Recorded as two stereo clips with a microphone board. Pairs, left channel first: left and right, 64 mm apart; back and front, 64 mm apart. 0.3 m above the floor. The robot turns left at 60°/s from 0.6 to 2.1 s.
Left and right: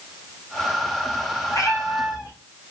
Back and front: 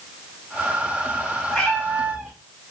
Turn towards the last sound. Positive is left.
turn(degrees=70)